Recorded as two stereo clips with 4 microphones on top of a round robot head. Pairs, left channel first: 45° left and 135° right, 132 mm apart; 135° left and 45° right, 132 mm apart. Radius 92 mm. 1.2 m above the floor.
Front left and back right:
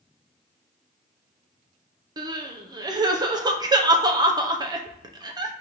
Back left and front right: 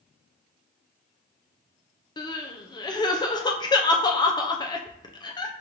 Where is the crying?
Straight behind, 0.5 m.